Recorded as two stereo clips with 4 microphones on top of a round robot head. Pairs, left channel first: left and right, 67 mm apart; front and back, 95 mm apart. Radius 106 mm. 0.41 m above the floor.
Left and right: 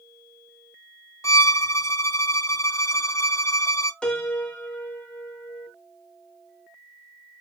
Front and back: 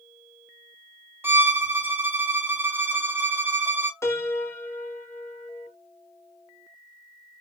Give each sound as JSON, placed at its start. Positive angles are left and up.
{"t": 1.2, "sound": "a violin", "azimuth_deg": 115, "distance_m": 1.0}
{"t": 4.0, "sound": "a piano", "azimuth_deg": 25, "distance_m": 1.3}